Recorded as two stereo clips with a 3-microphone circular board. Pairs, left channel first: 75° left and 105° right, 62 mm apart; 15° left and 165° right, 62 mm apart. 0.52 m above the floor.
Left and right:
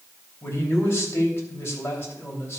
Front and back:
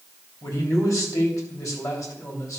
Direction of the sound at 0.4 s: 30° left.